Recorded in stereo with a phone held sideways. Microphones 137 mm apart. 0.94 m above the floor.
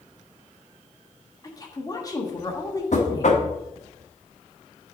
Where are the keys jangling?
I don't hear keys jangling.